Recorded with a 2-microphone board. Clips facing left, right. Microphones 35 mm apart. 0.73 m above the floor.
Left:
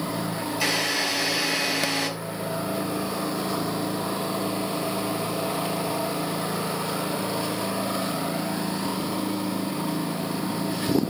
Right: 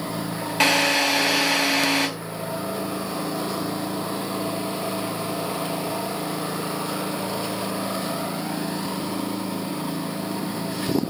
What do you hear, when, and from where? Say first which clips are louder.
0.6 s a drill: right 7 dB; 75° right (ahead or behind), 4 m